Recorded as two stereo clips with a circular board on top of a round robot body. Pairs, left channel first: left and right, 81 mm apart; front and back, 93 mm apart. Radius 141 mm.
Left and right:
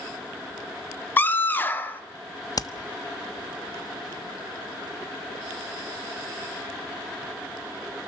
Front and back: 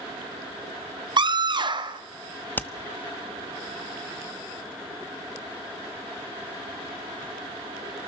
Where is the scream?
155° left, 2 m.